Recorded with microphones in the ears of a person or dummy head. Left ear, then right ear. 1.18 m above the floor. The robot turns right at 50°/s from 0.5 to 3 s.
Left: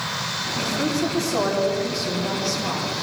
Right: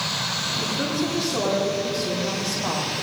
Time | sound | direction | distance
0.6 | a woman speaking | 110° left | 3 m